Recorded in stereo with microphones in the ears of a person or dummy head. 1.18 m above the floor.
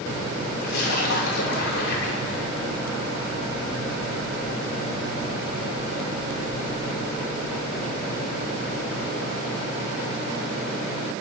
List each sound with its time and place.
0.6 s a splash: 65° left (ahead or behind), 1.0 m